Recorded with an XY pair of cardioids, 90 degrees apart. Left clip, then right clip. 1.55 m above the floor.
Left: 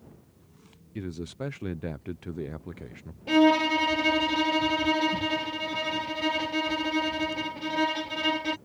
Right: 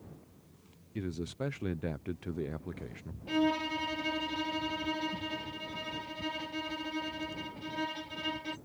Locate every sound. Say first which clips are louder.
0.9 s a man speaking: left 2 dB; 10° left
3.3 s a violin: left 10 dB; 65° left